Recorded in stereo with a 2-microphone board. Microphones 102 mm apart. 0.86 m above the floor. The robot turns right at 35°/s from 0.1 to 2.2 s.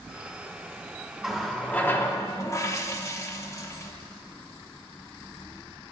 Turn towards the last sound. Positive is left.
turn(degrees=30)